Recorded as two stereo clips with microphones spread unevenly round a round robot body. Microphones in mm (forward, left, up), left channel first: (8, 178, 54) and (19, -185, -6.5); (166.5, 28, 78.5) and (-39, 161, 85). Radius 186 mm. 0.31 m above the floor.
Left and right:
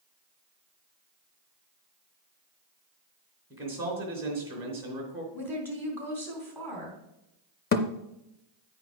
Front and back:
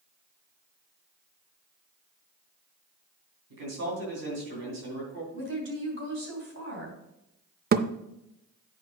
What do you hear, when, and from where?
3.5 s a man speaking: 170° right, 3 m
5.3 s a woman speaking: straight behind, 3 m
7.7 s a thud: 155° left, 0.5 m